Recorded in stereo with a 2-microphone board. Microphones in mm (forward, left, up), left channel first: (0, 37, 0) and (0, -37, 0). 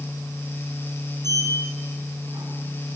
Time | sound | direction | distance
1.2 | a sliding door | 60° right (ahead or behind) | 5.5 m